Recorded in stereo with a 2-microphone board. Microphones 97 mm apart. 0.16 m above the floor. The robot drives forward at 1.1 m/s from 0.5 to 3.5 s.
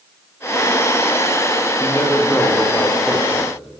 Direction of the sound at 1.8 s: 5° left (ahead or behind).